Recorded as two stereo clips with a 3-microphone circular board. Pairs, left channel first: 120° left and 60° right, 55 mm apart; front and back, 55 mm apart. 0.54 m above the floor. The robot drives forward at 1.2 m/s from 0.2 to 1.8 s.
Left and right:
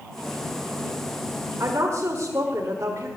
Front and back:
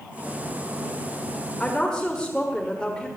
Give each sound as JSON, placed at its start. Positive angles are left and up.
{"t": 1.6, "sound": "a woman speaking", "azimuth_deg": -75, "distance_m": 1.7}